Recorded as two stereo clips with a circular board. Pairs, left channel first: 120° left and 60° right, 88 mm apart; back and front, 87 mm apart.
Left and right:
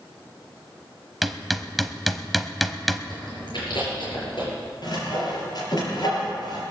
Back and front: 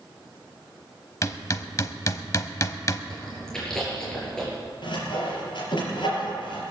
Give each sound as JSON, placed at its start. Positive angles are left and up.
{"t": 1.2, "sound": "hammering", "azimuth_deg": -155, "distance_m": 0.8}
{"t": 3.1, "sound": "chewing", "azimuth_deg": 95, "distance_m": 6.0}
{"t": 4.8, "sound": "sawing", "azimuth_deg": 155, "distance_m": 4.5}